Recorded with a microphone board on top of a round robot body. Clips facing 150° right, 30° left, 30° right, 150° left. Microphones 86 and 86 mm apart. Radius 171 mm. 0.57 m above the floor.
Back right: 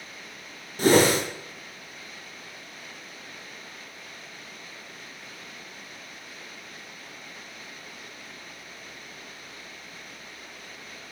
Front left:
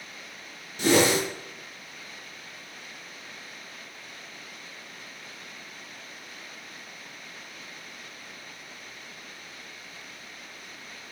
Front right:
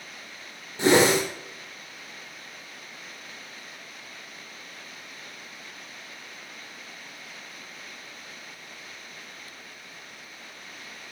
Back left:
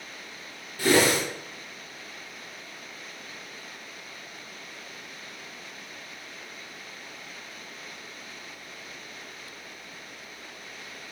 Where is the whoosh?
100° right, 0.7 m.